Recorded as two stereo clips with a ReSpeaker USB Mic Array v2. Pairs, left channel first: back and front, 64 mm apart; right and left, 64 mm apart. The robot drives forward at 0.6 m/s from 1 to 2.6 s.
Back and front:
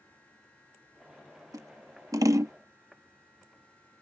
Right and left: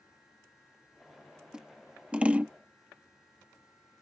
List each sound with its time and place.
1.5 s scissors: 15° left; by 2.5 s 25° left